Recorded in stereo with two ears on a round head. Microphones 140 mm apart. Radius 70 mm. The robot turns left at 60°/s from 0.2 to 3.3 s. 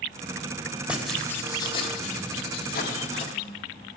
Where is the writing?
170° right, 1.7 m; by 3.3 s 45° left, 1.7 m.